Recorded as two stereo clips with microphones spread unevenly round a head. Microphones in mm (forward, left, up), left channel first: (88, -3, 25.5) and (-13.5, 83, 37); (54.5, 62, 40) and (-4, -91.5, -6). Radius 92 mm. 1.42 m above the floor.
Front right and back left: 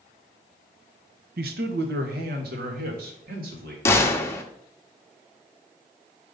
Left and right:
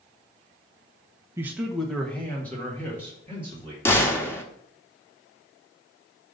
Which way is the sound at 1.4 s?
170° left.